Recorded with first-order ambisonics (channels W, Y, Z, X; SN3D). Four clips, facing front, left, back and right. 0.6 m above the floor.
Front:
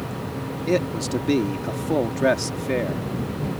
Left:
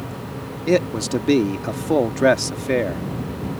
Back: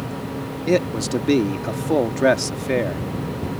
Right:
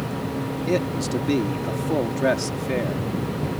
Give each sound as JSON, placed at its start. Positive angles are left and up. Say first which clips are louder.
{"t": 0.7, "sound": "a man speaking", "louder": "left 6 dB, back 3 dB", "azimuth_deg": 120}